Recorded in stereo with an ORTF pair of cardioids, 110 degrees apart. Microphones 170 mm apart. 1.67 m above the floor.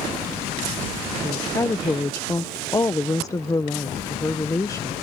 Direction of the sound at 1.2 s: 20° left.